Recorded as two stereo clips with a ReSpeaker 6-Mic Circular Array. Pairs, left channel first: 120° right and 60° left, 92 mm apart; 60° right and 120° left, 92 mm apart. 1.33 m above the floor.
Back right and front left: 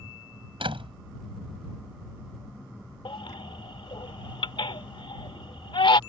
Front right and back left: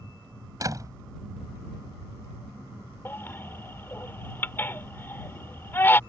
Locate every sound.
0.6 s a door slam: 70° left
3.0 s a baby crying: 125° right